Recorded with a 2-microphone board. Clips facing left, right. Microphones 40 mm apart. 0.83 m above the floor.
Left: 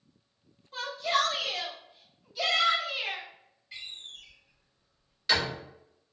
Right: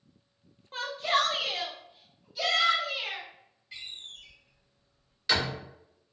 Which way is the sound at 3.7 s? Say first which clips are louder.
Even; centre (ahead or behind).